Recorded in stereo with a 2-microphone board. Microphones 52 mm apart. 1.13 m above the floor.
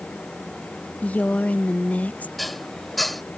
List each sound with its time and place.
1.0 s a woman speaking: 30° left (ahead or behind)
2.4 s dishes clattering: centre (ahead or behind)